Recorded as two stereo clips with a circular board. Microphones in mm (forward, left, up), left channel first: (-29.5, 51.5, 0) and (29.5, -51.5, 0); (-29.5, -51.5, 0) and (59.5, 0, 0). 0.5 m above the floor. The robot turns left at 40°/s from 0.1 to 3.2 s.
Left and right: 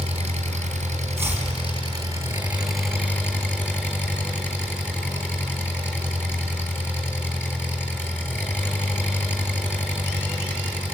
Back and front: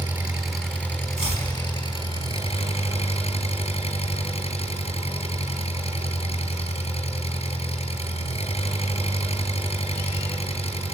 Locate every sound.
0.0 s an engine running: 45° right, 4 m; by 10.9 s 165° right, 4 m
1.2 s chopping: 125° right, 4 m; by 1.5 s 140° right, 4 m